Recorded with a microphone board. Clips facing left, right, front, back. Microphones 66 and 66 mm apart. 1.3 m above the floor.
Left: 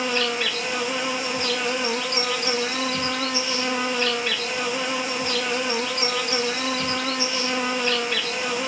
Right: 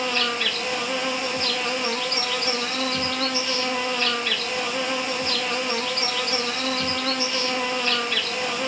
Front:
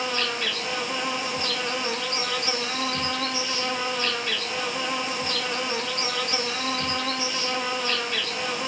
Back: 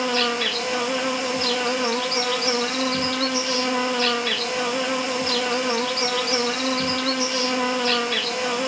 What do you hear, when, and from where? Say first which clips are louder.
0.0 s an insect: left 1 dB, back 5 dB; 165° left, 0.9 m